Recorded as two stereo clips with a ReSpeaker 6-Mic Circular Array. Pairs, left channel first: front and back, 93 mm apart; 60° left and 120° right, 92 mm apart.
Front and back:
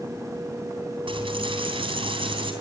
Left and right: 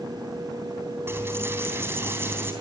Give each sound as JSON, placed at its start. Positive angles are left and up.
{"t": 1.1, "sound": "a dropped coin", "azimuth_deg": 175, "distance_m": 3.5}